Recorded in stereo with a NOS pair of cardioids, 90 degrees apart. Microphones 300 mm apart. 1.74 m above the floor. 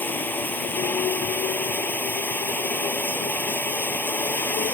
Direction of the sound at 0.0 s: 5° left.